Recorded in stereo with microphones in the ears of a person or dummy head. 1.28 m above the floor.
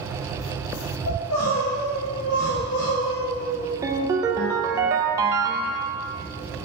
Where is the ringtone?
20° right (ahead or behind), 0.7 m.